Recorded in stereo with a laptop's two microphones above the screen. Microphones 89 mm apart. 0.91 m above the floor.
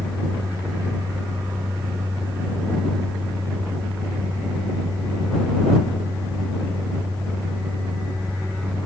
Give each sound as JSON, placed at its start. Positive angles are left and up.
{"t": 0.0, "sound": "a fan", "side_deg": -5}